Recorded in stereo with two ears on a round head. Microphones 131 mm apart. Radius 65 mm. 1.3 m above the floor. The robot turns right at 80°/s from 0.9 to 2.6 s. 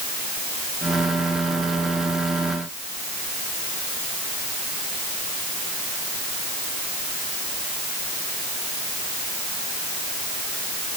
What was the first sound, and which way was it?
Only background noise.